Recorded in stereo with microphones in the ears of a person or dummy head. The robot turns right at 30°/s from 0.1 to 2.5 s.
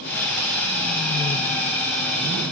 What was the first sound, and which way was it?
Only background noise.